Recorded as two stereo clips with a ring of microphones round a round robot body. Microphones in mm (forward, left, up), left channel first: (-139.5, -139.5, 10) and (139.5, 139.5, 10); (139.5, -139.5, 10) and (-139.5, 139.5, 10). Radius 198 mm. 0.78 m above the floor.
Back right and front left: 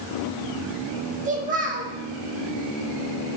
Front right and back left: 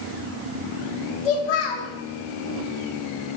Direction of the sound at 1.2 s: 25° right.